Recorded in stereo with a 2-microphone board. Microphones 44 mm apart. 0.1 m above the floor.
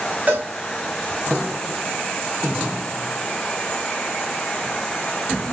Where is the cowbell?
35° right (ahead or behind), 3 m.